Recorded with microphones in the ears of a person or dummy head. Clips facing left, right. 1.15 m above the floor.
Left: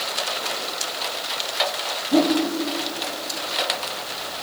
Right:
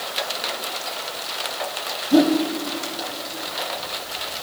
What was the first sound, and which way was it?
A whoosh, 5° right (ahead or behind).